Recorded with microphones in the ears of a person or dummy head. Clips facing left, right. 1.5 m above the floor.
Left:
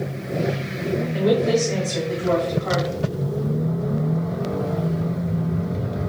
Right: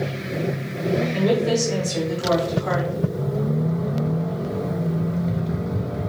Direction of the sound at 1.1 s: Centre (ahead or behind).